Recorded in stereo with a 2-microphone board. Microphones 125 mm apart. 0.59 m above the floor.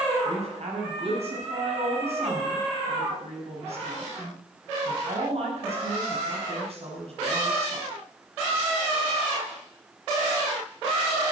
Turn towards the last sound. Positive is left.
turn(degrees=-55)  # may be behind; listen again after turning